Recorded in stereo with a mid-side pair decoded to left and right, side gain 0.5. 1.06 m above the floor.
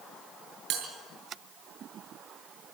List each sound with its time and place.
0.7 s a bell: 70° right, 6.5 m